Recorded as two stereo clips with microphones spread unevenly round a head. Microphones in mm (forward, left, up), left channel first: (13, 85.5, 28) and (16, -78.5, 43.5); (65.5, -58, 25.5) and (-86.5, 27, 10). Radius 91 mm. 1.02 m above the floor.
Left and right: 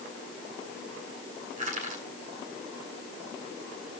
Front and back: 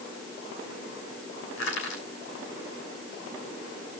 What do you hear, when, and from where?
1.6 s crushing: 40° right, 6 m